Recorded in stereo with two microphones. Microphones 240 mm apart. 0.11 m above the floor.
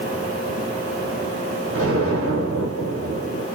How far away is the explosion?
About 2.5 m.